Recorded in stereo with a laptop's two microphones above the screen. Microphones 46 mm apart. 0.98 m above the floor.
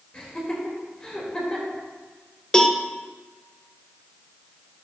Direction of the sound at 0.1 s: 15° left (ahead or behind).